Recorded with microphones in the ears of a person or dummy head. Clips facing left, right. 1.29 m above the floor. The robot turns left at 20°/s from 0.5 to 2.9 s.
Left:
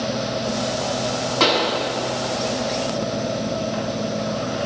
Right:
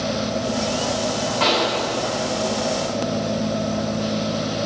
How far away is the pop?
About 2.5 m.